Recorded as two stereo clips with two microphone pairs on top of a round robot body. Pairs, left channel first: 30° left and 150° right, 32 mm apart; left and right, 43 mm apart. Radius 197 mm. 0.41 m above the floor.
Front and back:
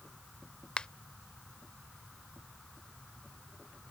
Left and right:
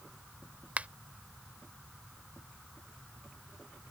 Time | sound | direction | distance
0.8 | a finger snap | 35° right | ?